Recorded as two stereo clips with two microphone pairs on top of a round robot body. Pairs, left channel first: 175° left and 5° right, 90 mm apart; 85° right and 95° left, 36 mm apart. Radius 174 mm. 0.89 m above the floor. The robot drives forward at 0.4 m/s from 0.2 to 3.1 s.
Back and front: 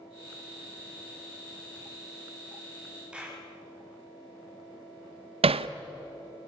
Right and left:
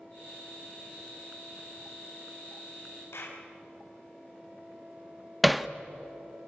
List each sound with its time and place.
3.1 s a clap: 85° right, 5 m
5.4 s hammering: 5° left, 0.7 m